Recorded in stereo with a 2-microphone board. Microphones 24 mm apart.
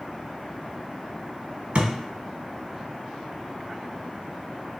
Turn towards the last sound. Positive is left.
turn(degrees=-60)  # may be behind; listen again after turning